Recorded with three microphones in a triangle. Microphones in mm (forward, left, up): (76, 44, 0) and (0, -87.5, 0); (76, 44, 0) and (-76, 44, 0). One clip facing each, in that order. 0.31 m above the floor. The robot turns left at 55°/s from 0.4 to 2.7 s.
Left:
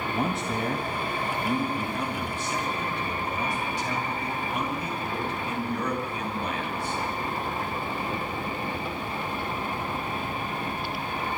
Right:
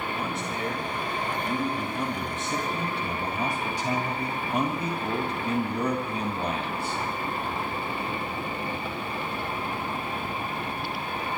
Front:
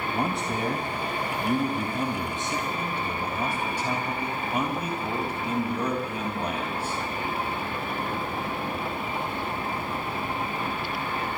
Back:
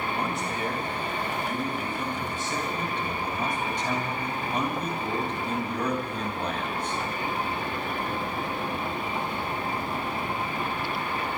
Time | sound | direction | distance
0.1 | a man speaking | 50° left | 2 m